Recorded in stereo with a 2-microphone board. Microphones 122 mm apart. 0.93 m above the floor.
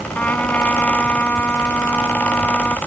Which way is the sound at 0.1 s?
15° left (ahead or behind).